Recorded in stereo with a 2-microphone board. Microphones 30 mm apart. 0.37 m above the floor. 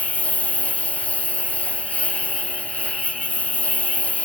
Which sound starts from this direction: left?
A lawn mower, at 0.0 s.